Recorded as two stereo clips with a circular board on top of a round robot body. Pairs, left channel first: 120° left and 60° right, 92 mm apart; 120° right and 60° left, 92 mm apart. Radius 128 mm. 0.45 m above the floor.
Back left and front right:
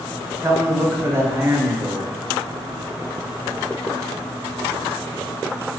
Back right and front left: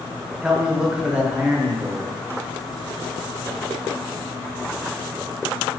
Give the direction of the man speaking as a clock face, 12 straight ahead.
1 o'clock.